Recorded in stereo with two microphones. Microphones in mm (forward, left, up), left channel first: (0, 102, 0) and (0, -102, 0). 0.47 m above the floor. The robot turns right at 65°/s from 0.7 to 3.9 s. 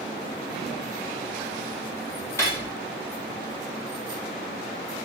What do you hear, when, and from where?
2.4 s cutlery clinking: 15° left (ahead or behind), 1.3 m; by 2.7 s 30° left (ahead or behind), 1.3 m